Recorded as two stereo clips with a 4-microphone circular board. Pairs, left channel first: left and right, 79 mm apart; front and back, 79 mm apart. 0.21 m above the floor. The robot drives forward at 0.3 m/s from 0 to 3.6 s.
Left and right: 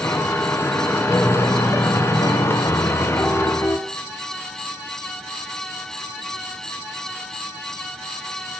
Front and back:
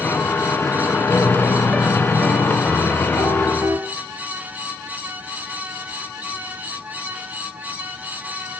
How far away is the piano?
About 0.6 m.